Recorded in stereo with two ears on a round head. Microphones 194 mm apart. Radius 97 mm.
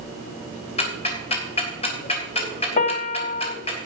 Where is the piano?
40° left (ahead or behind), 0.9 m.